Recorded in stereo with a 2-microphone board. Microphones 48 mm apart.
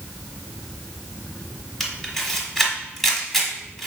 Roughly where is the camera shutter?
Centre.